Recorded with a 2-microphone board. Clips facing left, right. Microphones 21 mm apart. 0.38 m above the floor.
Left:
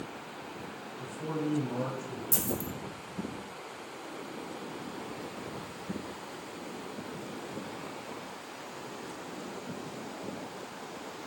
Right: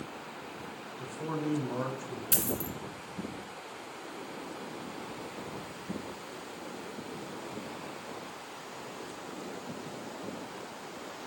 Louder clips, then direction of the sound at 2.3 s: Right 1 dB; 85° right.